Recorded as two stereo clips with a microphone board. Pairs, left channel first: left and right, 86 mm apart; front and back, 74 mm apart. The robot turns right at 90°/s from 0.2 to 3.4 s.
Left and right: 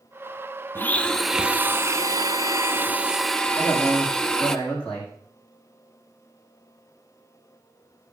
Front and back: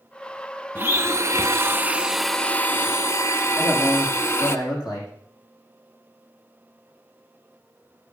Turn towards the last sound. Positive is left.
turn(degrees=15)